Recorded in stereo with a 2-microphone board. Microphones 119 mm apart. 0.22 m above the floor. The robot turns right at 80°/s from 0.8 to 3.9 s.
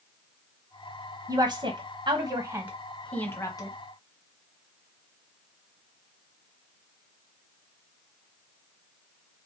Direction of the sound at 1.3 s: 30° right (ahead or behind).